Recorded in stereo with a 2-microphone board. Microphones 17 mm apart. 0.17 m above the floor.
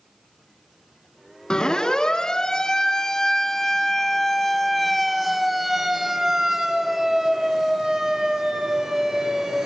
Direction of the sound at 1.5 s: 50° left (ahead or behind).